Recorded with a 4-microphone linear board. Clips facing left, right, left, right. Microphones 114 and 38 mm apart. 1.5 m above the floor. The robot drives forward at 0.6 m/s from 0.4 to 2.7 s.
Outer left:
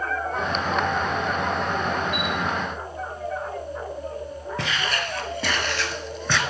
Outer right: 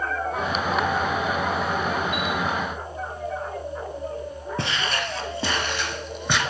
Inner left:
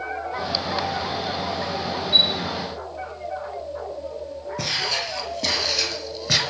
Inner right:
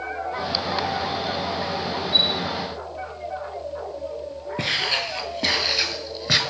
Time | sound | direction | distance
2.1 | a chime | 35° left (ahead or behind) | 5.5 m
4.6 | footsteps | 35° right (ahead or behind) | 2 m